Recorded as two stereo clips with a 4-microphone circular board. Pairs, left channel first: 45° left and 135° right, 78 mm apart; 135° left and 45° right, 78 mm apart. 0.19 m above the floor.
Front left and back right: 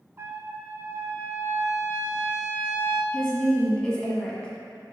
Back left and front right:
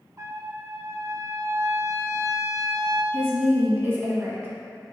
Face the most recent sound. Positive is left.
turn(degrees=-20)